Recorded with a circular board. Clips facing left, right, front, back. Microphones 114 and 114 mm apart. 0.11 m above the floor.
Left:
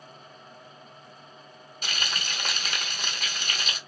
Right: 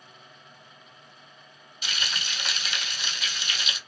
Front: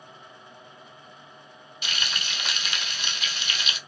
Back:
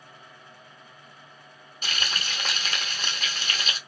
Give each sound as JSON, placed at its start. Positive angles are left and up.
{"t": 1.8, "sound": "frying", "azimuth_deg": 130, "distance_m": 0.8}